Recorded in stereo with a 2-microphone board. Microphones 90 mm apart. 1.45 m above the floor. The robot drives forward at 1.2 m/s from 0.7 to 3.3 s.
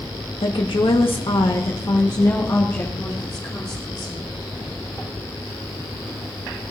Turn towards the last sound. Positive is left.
turn(degrees=30)  # may be behind; listen again after turning